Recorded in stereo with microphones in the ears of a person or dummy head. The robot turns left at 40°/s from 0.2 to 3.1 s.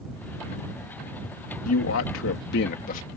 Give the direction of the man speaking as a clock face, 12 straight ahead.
9 o'clock.